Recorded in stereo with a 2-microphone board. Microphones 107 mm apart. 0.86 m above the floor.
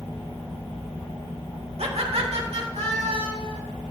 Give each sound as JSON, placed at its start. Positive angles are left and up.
{"t": 1.8, "sound": "laughter", "side_deg": -70, "distance_m": 1.6}